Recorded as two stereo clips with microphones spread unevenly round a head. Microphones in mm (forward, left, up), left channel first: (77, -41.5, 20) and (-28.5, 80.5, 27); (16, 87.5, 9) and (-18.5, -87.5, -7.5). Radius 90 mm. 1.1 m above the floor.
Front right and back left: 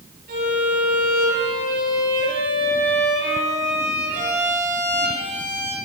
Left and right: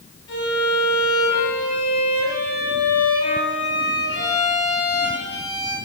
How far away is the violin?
About 7 m.